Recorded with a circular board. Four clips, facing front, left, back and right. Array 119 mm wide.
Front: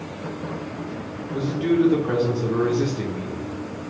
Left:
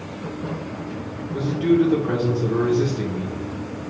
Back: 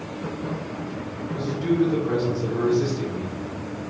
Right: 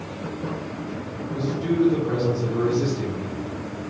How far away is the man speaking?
About 0.9 m.